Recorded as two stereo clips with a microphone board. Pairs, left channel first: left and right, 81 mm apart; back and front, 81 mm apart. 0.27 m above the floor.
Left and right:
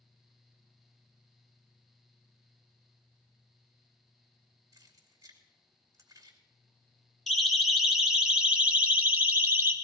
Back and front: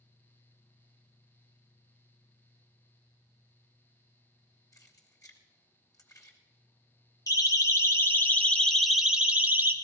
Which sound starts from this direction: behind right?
Keys jangling, at 4.7 s.